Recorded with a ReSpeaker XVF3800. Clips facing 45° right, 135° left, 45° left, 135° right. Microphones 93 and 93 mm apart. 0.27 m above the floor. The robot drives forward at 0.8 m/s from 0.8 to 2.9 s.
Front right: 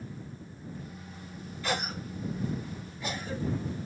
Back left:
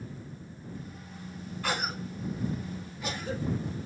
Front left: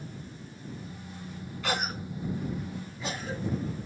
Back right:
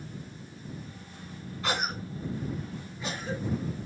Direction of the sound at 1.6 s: 165° left.